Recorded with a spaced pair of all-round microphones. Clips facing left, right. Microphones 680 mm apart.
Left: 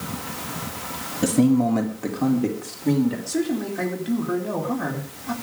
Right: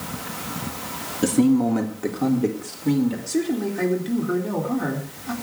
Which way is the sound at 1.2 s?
15° left (ahead or behind).